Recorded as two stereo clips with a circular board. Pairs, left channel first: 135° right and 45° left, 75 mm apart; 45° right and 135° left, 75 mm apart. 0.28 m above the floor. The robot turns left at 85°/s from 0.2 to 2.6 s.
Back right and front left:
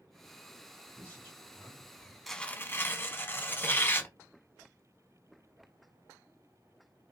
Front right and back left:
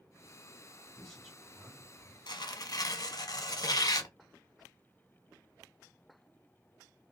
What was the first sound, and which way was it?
A man speaking, 110° right.